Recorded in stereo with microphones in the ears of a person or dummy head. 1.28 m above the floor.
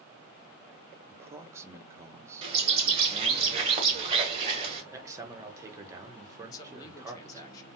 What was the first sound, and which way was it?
A man speaking, 15° right (ahead or behind).